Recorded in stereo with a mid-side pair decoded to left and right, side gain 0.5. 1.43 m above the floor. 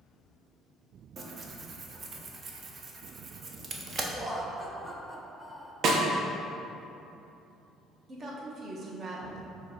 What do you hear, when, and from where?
1.2 s tearing paper: 40° right, 0.6 m
4.2 s laughter: 5° right, 1.0 m
5.8 s a snare drum: 55° right, 0.6 m
8.1 s a woman speaking: 45° right, 1.1 m